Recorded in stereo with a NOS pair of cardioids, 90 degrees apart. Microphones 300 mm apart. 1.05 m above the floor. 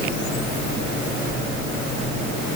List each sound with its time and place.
Only background noise.